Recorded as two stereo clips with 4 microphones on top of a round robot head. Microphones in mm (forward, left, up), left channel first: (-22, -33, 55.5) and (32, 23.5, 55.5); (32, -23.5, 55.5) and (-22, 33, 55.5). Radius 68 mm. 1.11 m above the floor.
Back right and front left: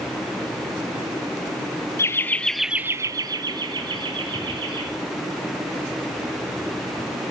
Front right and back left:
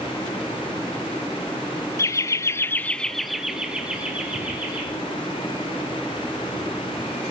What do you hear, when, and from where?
2.0 s laughter: 85° right, 1.1 m; by 4.8 s 65° left, 2.5 m